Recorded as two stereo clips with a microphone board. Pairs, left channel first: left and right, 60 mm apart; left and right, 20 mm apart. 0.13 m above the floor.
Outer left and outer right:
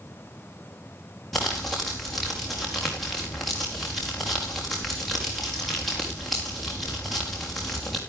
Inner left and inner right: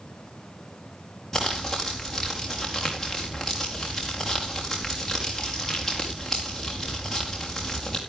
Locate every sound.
1.3 s crumpling: centre (ahead or behind), 4.5 m